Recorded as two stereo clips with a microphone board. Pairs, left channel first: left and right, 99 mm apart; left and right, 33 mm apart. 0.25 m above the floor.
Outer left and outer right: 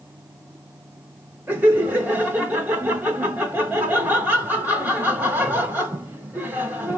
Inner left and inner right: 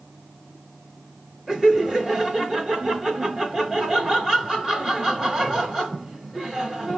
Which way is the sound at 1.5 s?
20° right (ahead or behind).